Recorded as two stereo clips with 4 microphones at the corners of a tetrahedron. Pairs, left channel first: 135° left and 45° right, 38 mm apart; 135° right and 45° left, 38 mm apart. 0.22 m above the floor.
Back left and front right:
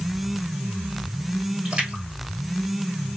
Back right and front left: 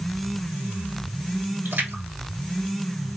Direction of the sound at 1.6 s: 20° left.